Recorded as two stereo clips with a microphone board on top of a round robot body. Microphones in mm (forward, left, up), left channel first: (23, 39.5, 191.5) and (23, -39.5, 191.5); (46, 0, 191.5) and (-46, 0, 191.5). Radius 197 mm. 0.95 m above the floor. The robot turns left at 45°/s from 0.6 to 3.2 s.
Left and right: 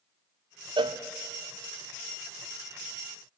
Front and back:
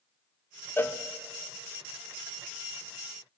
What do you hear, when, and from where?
0.8 s a cowbell: 65° right, 0.7 m; by 1.0 s 80° right, 0.7 m